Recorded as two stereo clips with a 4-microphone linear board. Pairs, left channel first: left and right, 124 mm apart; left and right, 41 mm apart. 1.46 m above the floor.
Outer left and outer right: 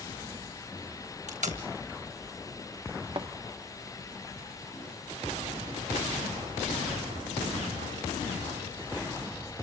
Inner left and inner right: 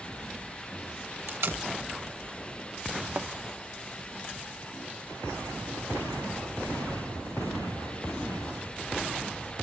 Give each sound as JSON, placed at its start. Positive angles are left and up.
{"t": 1.3, "sound": "tape being pulled", "side_deg": -75, "distance_m": 4.5}
{"t": 3.1, "sound": "a thud", "side_deg": -45, "distance_m": 1.1}